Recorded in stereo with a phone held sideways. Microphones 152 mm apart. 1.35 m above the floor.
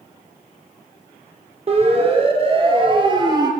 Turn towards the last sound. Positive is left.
turn(degrees=-25)  # may be behind; listen again after turning